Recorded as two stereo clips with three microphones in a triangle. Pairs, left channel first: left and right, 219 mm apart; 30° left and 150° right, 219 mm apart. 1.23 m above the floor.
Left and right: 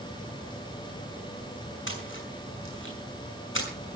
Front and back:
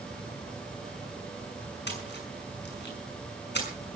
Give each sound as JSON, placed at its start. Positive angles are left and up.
{"t": 1.9, "sound": "a splash", "azimuth_deg": 65, "distance_m": 6.5}